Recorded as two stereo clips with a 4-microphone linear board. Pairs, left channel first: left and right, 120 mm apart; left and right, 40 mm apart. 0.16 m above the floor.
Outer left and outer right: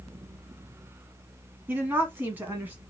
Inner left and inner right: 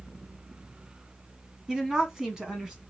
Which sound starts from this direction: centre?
A woman speaking, at 1.7 s.